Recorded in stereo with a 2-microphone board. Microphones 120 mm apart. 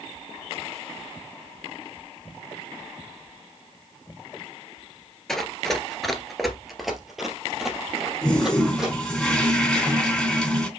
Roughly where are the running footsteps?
Centre.